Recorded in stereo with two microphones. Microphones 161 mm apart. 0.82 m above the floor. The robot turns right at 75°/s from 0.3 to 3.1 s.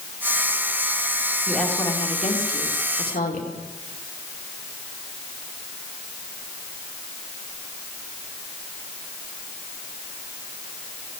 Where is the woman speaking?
10° right, 2.5 m; by 3.5 s 115° left, 2.5 m.